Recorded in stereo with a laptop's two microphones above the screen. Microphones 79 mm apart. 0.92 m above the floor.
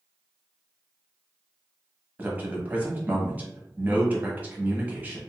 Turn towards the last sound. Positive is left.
turn(degrees=-20)  # may be behind; listen again after turning